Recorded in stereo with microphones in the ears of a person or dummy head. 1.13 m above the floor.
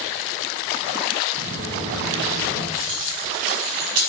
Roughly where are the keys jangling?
Right.